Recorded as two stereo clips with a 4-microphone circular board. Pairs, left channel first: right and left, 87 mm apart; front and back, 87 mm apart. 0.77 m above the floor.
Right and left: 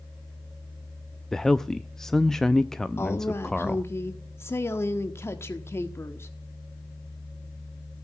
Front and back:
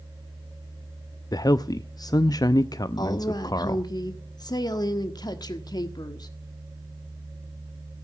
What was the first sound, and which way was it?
A man speaking, 5° right.